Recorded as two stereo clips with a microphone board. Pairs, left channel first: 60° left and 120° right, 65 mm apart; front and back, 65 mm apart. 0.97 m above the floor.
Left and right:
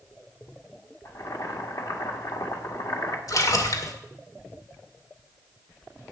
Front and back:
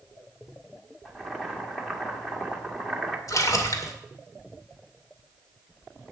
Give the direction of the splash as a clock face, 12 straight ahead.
11 o'clock.